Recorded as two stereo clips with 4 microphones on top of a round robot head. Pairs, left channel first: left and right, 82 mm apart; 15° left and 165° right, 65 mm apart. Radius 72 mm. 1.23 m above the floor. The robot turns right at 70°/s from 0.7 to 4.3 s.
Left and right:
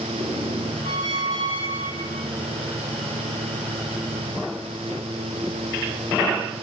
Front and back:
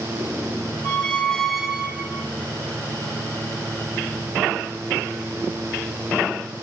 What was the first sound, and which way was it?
A squeak, 55° left.